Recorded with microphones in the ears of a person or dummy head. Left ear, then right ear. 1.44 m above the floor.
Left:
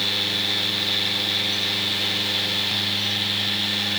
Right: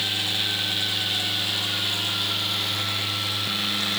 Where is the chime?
I don't hear a chime.